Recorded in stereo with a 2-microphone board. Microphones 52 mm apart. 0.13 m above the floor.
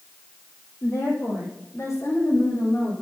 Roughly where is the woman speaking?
Left.